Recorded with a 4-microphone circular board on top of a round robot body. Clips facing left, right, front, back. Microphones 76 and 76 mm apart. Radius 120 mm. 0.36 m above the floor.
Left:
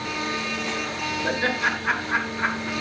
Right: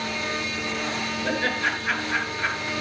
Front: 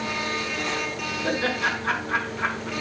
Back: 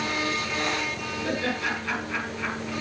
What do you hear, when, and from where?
1.2 s laughter: 50° left, 5.5 m